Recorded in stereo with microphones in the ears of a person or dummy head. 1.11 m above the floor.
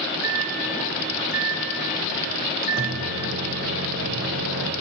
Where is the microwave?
65° right (ahead or behind), 0.7 m.